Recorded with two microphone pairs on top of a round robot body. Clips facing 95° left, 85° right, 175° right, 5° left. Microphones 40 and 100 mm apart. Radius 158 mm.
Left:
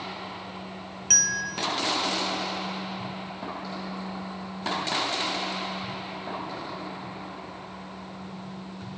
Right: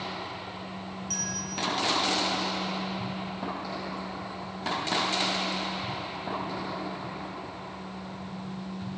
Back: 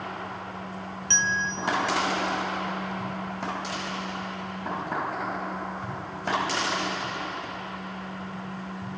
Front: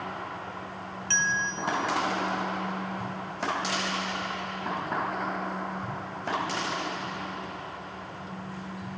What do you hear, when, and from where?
1.1 s a bell: 115° left, 1.4 m